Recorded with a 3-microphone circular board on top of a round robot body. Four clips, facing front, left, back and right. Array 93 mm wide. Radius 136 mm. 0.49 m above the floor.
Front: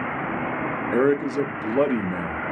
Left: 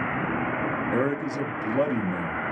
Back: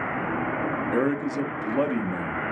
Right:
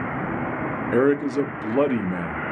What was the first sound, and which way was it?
A man speaking, 55° right.